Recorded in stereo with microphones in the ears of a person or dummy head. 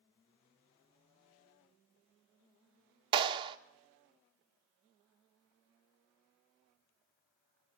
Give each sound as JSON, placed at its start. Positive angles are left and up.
{"t": 3.1, "sound": "a clap", "side_deg": -25, "distance_m": 1.4}